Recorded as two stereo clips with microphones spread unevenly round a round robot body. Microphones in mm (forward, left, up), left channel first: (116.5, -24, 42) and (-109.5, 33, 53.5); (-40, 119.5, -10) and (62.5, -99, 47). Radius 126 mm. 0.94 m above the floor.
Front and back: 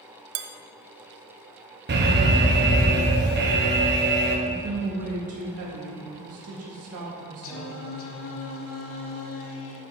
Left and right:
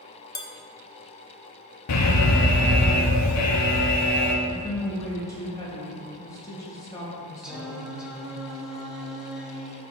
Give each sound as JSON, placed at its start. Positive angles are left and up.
{"t": 0.3, "sound": "dishes clattering", "azimuth_deg": -165, "distance_m": 0.5}
{"t": 1.9, "sound": "an alarm", "azimuth_deg": 120, "distance_m": 0.9}
{"t": 4.5, "sound": "a woman speaking", "azimuth_deg": -175, "distance_m": 1.9}
{"t": 7.4, "sound": "singing", "azimuth_deg": 15, "distance_m": 0.7}